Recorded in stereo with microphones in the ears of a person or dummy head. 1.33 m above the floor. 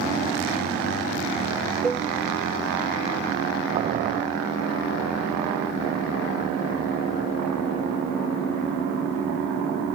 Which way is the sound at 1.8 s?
5° left (ahead or behind).